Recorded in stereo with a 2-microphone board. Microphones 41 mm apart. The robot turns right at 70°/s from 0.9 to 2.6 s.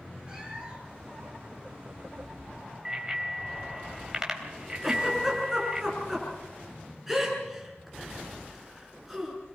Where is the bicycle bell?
15° right (ahead or behind), 3.5 m.